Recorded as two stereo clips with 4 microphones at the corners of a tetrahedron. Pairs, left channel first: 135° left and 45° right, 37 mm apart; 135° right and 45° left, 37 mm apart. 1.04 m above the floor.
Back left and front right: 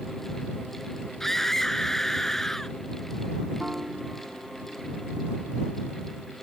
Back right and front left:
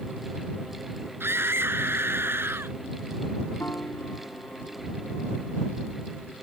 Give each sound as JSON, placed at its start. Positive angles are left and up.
{"t": 1.2, "sound": "a scream", "azimuth_deg": 50}
{"t": 3.6, "sound": "a piano", "azimuth_deg": -120}